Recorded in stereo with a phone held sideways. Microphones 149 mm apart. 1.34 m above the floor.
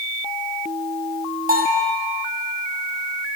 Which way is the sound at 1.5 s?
75° right (ahead or behind).